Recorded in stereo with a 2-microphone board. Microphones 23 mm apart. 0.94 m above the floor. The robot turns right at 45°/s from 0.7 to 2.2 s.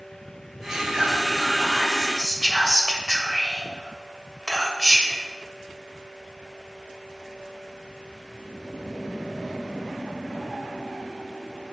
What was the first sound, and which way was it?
Whispering, 30° right (ahead or behind).